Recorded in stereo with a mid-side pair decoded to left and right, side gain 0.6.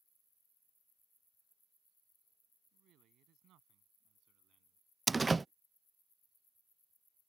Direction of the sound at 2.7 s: 60° right.